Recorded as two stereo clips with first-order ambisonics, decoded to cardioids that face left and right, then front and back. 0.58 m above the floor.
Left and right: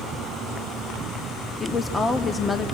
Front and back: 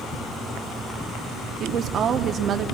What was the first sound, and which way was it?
A woman speaking, 155° left.